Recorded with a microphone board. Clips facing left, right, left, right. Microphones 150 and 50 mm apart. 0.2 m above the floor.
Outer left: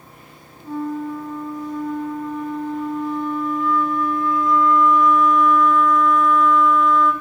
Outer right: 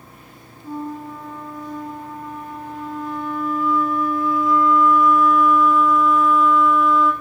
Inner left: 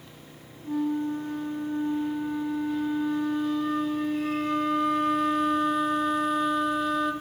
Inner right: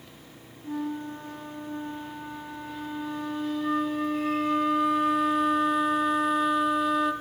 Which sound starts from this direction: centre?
A flute, at 0.6 s.